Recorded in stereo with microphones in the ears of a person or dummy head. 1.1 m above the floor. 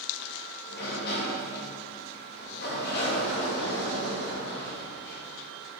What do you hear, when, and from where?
0.7 s a sliding door: 55° left (ahead or behind), 2 m